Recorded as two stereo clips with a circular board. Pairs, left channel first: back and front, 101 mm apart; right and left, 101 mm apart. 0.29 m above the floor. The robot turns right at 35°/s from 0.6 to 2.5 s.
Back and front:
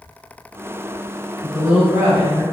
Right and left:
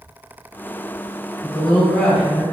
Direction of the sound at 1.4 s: 50° right.